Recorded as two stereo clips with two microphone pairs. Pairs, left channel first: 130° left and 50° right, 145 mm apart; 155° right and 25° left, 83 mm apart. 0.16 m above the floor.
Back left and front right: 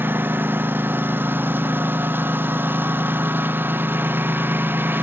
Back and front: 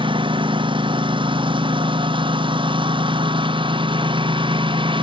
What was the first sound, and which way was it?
A lawn mower, 25° left.